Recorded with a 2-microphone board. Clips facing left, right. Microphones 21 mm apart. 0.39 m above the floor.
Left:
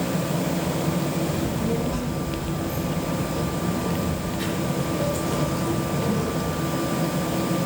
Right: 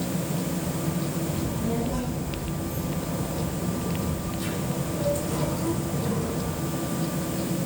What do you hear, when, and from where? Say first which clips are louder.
1.3 s a child speaking: left 3 dB; 25° left (ahead or behind), 2.5 m; by 6.6 s 60° left (ahead or behind), 6 m